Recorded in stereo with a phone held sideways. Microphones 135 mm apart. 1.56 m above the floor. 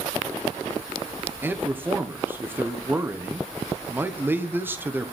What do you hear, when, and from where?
1.4 s a man speaking: 15° right (ahead or behind), 1.1 m